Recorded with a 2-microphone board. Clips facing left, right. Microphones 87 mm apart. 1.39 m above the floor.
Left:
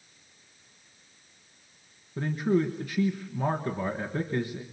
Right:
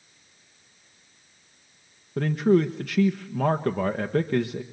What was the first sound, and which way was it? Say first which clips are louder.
A man speaking: right 5 dB; 85° right.